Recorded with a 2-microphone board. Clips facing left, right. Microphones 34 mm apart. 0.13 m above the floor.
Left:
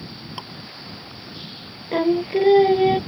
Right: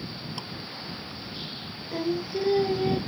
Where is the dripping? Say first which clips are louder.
Left 6 dB; 25° left (ahead or behind).